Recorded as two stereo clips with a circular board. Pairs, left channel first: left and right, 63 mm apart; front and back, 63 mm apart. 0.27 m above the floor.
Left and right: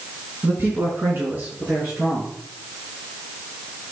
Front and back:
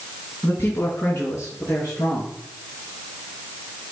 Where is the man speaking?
40° right, 2.5 m; by 2.3 s 30° right, 5 m.